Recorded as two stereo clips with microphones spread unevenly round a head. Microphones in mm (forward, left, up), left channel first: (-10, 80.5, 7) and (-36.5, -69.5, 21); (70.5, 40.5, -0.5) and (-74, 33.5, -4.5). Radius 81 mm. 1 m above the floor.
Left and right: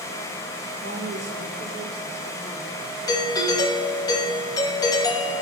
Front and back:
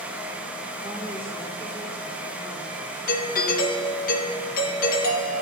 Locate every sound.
0.8 s a woman speaking: 95° right, 3.5 m; by 3.0 s 135° right, 3 m
3.1 s a doorbell: 15° left, 1.6 m